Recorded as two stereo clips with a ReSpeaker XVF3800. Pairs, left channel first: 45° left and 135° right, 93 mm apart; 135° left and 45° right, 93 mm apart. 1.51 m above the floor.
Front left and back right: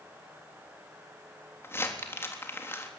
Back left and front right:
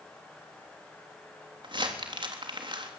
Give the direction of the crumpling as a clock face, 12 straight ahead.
1 o'clock.